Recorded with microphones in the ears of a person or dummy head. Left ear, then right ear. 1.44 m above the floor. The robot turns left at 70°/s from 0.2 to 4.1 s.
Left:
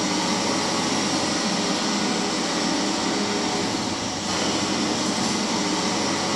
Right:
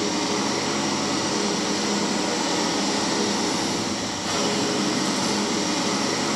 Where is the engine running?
135° left, 1.9 m; by 6.4 s 140° right, 1.9 m.